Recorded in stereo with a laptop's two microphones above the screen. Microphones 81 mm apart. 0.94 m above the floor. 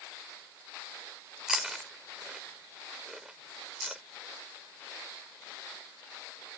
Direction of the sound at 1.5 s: 5° right (ahead or behind).